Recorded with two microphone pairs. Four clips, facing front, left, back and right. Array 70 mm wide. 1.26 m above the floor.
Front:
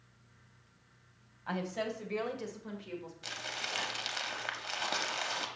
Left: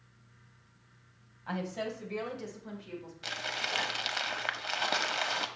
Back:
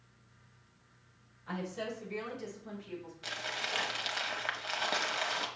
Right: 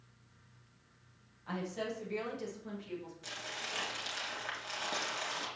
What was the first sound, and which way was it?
A woman speaking, 20° left.